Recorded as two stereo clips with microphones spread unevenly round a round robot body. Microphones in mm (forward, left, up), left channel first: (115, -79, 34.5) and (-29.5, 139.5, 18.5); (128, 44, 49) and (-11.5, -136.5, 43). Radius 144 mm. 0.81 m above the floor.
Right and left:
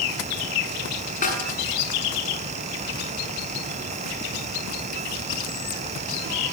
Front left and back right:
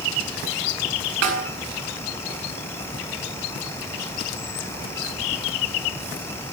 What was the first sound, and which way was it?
A snare drum, 120° right.